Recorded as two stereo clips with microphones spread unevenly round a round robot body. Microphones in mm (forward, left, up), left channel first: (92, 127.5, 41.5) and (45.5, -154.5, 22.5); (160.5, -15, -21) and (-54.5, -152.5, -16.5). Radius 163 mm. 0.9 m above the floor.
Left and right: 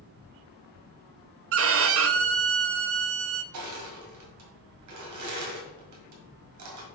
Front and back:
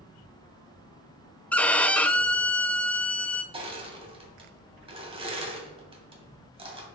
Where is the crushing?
80° right, 1.7 m.